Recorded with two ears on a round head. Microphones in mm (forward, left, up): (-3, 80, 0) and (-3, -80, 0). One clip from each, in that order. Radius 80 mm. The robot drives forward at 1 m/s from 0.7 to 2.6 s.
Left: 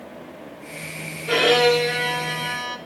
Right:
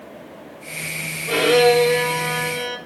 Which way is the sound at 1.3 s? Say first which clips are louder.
Right 2 dB; 60° left (ahead or behind).